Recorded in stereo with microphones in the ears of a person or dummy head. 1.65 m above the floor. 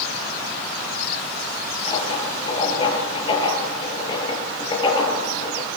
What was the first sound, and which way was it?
Writing, 35° left (ahead or behind).